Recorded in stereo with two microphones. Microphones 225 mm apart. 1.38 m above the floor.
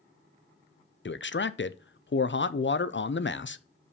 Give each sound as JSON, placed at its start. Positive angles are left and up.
{"t": 1.1, "sound": "a man speaking", "side_deg": 55, "distance_m": 0.5}